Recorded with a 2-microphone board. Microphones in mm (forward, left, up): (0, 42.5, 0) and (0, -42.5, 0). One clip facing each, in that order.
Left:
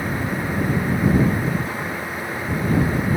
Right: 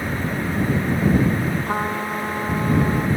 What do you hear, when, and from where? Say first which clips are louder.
1.6 s a trumpet: right 4 dB; 60° right (ahead or behind)